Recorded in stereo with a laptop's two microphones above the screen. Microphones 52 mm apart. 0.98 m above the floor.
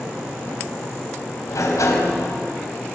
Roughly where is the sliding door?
Left.